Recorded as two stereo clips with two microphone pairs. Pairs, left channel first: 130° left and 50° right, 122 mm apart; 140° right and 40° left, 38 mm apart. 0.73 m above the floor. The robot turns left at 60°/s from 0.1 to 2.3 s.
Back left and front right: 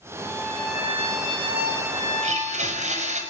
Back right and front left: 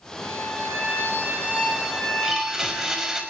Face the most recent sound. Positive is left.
turn(degrees=-35)